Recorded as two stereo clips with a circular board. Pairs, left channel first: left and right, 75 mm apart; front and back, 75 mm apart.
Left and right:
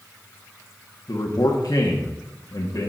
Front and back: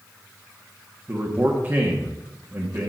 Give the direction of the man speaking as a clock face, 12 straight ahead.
8 o'clock.